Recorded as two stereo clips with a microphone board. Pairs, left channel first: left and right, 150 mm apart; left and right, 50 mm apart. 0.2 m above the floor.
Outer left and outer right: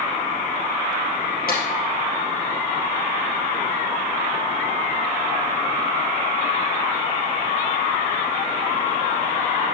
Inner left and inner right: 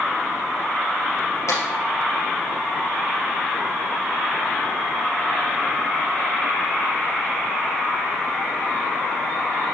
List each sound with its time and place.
1.5 s a clap: 70° left (ahead or behind), 3 m